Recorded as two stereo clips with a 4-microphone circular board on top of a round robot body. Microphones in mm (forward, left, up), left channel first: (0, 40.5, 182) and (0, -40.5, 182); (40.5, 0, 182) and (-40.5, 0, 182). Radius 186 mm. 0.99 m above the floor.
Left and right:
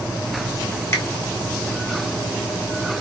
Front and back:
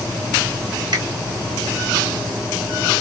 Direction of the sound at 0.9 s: 145° left.